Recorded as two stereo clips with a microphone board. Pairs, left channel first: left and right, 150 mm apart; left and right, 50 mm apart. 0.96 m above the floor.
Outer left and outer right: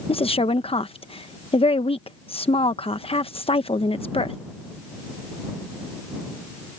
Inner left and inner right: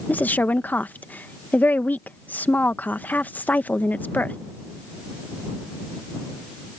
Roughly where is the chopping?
No chopping in this recording.